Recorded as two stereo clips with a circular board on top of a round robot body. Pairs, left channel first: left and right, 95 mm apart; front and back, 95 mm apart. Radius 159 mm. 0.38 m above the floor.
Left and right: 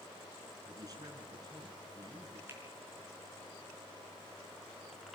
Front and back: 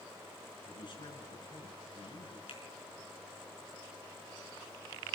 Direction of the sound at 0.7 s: 40° right.